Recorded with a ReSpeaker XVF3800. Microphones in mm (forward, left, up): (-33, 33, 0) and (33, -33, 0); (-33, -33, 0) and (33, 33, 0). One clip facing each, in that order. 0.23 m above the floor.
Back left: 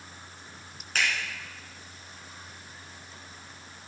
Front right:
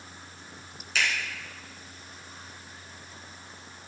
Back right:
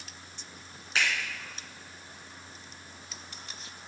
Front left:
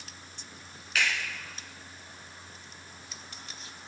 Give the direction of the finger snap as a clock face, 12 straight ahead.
6 o'clock.